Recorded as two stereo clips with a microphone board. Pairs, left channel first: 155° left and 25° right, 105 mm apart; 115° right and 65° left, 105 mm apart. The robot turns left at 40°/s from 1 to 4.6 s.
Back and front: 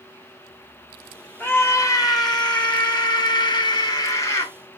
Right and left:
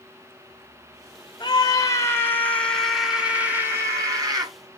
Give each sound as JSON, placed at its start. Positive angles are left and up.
{"t": 1.4, "sound": "a scream", "azimuth_deg": -140, "distance_m": 1.0}